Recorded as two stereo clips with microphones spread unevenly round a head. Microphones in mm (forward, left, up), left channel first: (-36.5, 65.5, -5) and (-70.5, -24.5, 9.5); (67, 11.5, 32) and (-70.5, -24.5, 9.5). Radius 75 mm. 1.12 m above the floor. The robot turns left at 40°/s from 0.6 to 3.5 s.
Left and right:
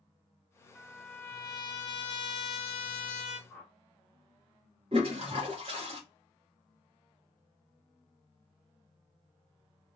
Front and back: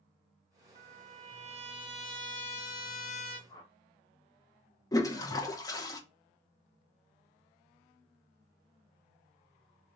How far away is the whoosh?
About 0.7 m.